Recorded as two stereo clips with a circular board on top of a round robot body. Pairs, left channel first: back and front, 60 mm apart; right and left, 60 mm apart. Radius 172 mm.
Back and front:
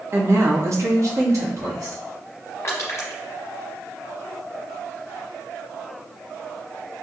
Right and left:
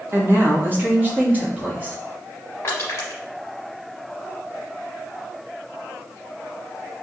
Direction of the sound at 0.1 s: 45° left.